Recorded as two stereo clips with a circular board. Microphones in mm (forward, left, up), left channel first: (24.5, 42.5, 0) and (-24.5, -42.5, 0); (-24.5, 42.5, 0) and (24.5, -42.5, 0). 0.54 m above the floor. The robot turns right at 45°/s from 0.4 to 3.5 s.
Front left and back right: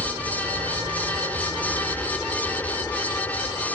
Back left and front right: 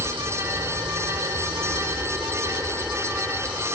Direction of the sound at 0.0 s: 90° right.